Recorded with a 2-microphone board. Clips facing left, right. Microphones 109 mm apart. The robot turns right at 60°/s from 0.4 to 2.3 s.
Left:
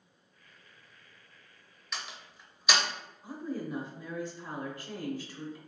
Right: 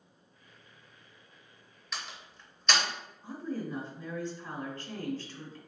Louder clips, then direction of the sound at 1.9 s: Even; centre (ahead or behind).